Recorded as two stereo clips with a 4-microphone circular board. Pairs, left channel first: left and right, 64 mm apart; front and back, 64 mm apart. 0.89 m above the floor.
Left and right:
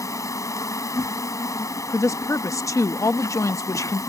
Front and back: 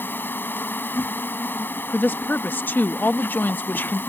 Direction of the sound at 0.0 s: 60° left.